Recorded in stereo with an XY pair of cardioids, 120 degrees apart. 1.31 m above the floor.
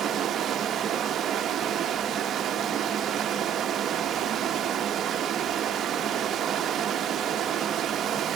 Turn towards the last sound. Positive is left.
turn(degrees=-50)